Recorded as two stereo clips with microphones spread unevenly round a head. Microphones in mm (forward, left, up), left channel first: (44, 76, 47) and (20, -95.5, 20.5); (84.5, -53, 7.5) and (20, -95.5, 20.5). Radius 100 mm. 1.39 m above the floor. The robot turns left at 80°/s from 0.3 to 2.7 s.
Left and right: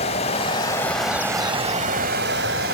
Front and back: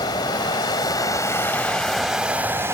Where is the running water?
60° left, 1.4 m; by 2.8 s 130° right, 1.4 m.